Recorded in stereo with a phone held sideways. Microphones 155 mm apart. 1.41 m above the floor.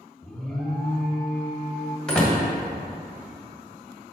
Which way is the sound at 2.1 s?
5° left (ahead or behind).